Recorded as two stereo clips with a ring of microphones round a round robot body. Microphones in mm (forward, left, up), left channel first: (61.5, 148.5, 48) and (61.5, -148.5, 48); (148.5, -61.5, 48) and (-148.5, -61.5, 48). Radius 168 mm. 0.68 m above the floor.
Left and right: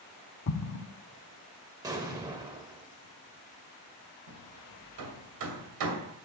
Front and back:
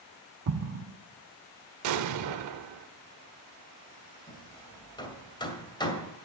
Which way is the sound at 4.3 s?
75° right.